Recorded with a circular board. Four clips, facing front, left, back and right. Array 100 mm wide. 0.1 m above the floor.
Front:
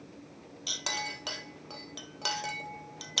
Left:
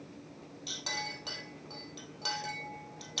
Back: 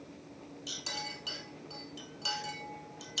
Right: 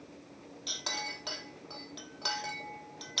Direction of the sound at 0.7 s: 10° right.